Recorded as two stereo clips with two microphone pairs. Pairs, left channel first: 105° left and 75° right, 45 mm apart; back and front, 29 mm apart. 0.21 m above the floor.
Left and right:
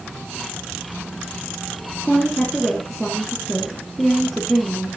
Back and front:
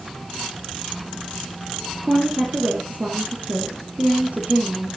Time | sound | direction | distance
2.0 | a woman speaking | 25° left | 4 m